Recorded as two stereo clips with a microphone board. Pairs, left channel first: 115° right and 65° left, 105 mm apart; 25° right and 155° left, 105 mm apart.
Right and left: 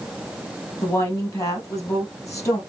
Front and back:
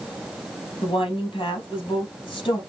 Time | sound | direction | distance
0.8 | a woman speaking | 55° right | 3 m